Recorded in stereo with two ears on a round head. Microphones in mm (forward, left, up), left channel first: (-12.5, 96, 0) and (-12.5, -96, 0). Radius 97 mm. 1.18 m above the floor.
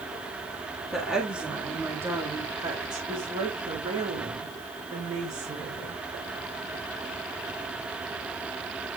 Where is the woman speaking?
Centre (ahead or behind), 2.5 m; by 6.0 s 40° right (ahead or behind), 4.5 m.